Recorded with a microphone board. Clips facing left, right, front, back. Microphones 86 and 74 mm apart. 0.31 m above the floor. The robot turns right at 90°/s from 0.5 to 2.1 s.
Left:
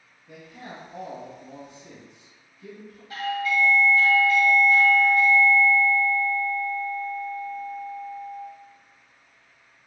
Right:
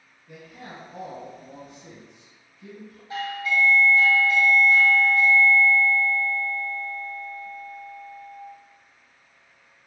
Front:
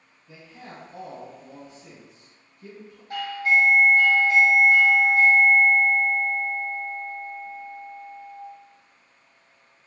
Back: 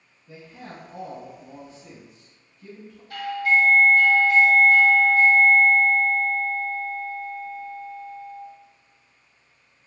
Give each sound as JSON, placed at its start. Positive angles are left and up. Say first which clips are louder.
{"t": 0.3, "sound": "a man speaking", "louder": "left 1 dB, back 2 dB", "azimuth_deg": 170, "distance_m": 1.7}
{"t": 3.1, "sound": "a doorbell", "louder": "left 1 dB, back 1 dB", "azimuth_deg": -45, "distance_m": 1.7}